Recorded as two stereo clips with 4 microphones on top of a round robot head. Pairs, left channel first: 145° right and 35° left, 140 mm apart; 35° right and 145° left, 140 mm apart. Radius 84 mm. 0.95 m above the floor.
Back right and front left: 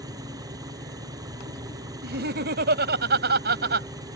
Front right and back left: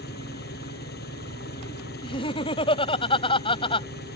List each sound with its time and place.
0.0 s an engine running: 35° right
2.0 s laughter: 20° left